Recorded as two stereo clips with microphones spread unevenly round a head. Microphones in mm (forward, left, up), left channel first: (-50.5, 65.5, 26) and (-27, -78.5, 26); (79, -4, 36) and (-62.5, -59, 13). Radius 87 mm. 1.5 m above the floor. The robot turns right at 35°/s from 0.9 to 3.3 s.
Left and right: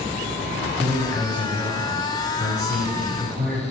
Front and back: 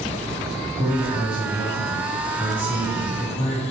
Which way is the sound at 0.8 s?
120° right.